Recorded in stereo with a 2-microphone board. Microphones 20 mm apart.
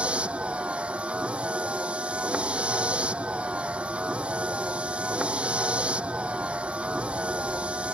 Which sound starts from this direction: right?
A vehicle, at 0.0 s.